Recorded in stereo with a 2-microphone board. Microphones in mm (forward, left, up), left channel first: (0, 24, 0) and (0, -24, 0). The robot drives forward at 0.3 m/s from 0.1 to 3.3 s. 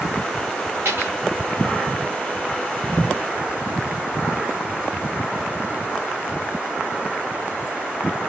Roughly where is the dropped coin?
Right.